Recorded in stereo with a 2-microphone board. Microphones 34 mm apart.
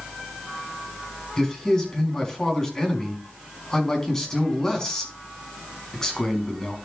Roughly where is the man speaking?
Centre.